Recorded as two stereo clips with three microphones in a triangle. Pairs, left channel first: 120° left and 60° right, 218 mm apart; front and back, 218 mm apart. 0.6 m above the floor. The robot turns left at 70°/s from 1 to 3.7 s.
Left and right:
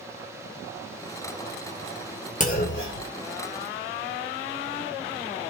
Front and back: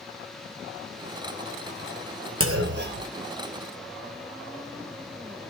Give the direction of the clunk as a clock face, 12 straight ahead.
6 o'clock.